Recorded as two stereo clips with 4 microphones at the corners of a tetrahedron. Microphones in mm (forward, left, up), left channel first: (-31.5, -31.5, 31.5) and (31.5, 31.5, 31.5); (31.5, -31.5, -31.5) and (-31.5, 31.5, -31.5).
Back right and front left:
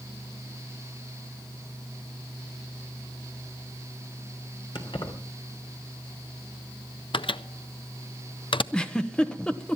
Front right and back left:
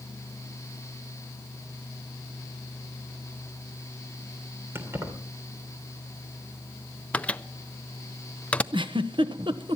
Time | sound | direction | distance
4.8 | keys jangling | 160° right | 3 m
7.1 | a microwave | 120° right | 0.6 m
8.7 | a giggle | 145° left | 1.0 m